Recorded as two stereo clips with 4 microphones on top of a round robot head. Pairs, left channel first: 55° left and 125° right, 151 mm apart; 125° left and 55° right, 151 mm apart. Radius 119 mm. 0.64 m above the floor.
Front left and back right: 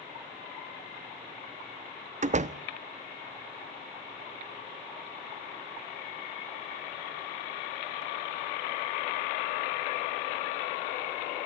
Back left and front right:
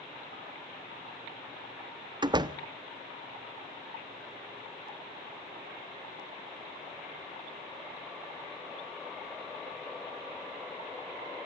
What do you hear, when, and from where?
2.2 s a door slam: 110° right, 1.0 m